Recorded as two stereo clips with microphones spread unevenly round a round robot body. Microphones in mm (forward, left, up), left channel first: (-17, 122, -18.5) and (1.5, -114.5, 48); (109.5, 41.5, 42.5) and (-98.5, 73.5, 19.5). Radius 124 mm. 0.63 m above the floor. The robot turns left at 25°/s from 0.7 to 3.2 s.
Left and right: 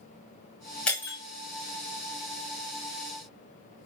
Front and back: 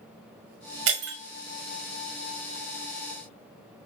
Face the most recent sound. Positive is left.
turn(degrees=120)